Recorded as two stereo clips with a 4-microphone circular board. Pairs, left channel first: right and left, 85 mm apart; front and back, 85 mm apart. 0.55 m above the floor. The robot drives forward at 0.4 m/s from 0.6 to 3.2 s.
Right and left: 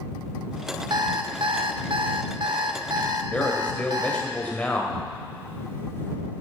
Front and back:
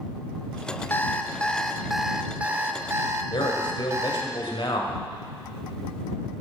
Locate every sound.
0.9 s an alarm clock: 65° left, 0.9 m; by 4.3 s 125° left, 1.0 m
3.3 s a man speaking: 15° right, 2.5 m